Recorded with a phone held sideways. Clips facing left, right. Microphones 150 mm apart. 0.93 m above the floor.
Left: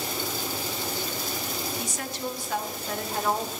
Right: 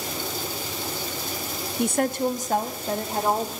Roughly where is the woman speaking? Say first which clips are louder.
Right 10 dB; right.